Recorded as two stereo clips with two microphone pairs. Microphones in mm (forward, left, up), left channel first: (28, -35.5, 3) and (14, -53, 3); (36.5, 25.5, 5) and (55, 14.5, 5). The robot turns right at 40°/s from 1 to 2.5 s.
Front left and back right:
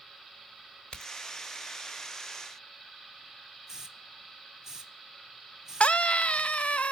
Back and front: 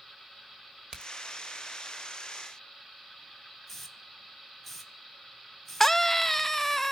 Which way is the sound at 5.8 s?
75° left.